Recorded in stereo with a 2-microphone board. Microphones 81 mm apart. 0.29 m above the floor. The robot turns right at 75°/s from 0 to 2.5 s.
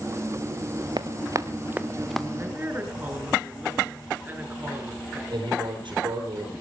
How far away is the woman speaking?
About 4.5 m.